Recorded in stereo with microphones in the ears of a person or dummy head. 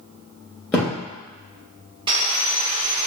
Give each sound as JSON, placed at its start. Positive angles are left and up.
{"t": 0.7, "sound": "a thud", "side_deg": 15, "distance_m": 1.3}
{"t": 2.1, "sound": "sawing", "side_deg": -25, "distance_m": 0.5}